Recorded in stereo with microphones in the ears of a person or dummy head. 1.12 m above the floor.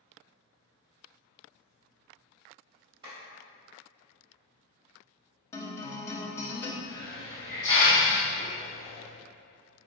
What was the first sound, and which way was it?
A clap, 25° right (ahead or behind).